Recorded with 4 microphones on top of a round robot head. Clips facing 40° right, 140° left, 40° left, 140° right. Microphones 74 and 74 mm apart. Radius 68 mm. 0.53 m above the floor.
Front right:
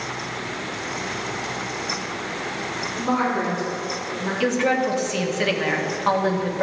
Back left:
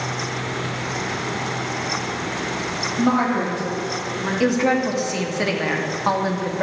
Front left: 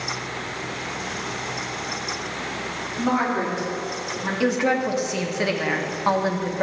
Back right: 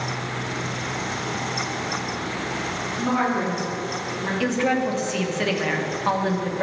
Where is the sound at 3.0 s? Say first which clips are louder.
Back left 3 dB, front left 1 dB; 125° left, 3 m.